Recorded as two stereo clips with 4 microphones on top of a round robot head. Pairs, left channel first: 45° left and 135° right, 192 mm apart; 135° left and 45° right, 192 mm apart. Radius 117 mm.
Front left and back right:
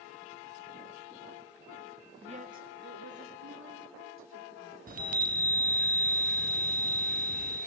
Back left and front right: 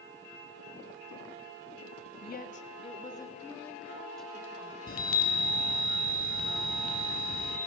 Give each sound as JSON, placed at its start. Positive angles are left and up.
{"t": 2.2, "sound": "a woman speaking", "azimuth_deg": 170, "distance_m": 1.4}
{"t": 4.9, "sound": "a chime", "azimuth_deg": 180, "distance_m": 1.9}